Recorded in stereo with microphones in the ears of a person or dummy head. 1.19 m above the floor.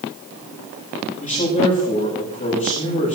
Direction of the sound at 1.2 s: 40° left (ahead or behind).